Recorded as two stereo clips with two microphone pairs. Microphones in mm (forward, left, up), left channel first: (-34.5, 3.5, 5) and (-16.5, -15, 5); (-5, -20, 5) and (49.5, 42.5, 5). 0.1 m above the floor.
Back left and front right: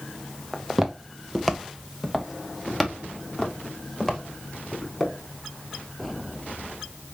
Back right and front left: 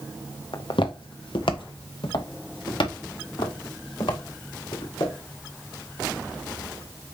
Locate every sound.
0.5 s footsteps: 125° right, 1.0 m; by 5.1 s 145° right, 4 m